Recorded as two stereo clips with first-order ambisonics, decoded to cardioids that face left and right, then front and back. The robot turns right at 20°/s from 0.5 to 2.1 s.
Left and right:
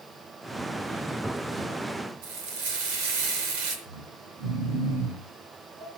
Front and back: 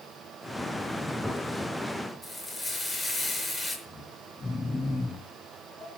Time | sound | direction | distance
2.2 | frying | 90° right | 6 m
3.9 | snoring | 85° right | 9.5 m